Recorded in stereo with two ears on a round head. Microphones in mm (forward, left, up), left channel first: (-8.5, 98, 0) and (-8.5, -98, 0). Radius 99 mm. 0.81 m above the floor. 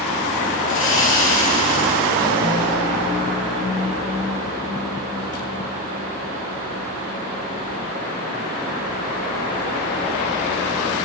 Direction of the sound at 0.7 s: 40° left (ahead or behind).